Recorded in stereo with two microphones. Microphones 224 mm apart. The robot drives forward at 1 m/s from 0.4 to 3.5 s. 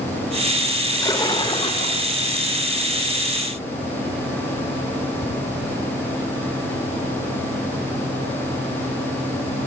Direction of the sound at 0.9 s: 15° left (ahead or behind).